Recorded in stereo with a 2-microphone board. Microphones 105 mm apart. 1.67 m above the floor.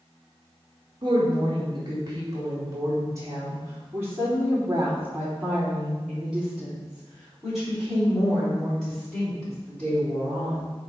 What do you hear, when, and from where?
1.0 s a woman speaking: 50° right (ahead or behind), 3 m; by 10.6 s 20° left (ahead or behind), 5.5 m